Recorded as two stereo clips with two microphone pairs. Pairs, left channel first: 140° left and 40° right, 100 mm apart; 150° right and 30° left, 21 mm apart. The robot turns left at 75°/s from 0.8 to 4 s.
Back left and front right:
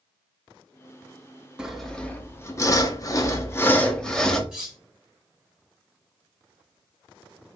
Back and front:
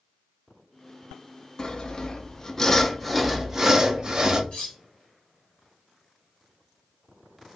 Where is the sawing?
115° right, 0.7 m; by 4.4 s 60° left, 0.7 m.